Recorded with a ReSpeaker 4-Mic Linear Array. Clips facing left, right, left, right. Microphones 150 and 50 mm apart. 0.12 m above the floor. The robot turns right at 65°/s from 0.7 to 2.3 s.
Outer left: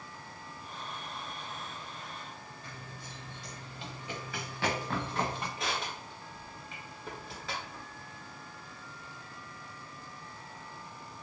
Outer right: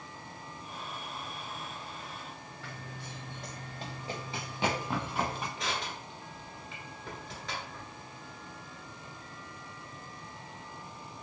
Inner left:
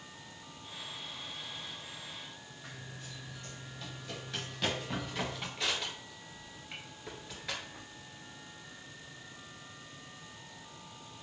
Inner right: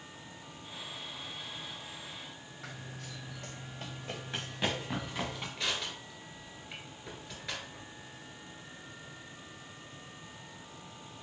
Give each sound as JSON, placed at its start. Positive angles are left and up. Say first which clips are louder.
{"t": 2.6, "sound": "running footsteps", "louder": "outer right 2 dB, inner right 3 dB", "side_deg": -80, "distance_m": 1.0}
{"t": 5.6, "sound": "crushing", "louder": "even, even", "side_deg": 5, "distance_m": 1.3}